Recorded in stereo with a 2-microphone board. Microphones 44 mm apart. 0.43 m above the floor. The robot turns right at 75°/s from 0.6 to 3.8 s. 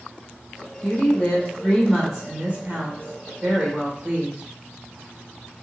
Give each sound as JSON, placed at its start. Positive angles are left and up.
{"t": 0.8, "sound": "a woman speaking", "azimuth_deg": 105, "distance_m": 1.0}